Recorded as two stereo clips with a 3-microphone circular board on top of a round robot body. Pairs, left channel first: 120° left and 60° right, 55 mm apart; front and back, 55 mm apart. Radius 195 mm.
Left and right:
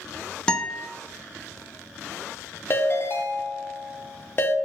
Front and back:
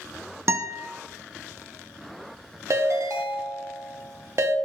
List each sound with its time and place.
0.5 s a guitar: 170° right, 0.6 m
2.7 s a ringtone: 160° left, 0.6 m